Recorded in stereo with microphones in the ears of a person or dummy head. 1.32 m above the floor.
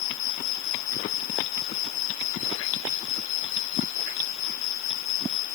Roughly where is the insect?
Left.